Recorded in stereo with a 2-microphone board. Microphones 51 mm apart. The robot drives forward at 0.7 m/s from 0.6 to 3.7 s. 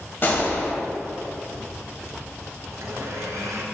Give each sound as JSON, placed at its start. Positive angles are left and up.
{"t": 0.2, "sound": "a gunshot", "side_deg": 40, "distance_m": 1.6}
{"t": 2.7, "sound": "a blender", "side_deg": -75, "distance_m": 1.1}